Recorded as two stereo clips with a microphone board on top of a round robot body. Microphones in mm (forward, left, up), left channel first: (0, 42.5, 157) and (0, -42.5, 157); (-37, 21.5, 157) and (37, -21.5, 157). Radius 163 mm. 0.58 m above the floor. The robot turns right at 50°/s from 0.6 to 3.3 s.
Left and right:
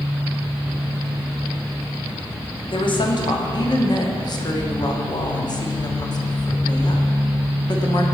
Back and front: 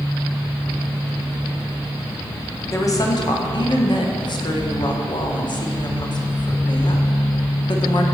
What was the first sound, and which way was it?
A woman speaking, 95° left.